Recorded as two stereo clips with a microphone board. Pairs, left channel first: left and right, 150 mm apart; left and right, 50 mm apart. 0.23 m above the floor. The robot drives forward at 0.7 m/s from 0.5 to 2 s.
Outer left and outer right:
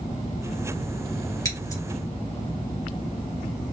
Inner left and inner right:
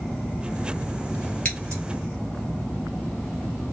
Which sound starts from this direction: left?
Scissors, at 1.4 s.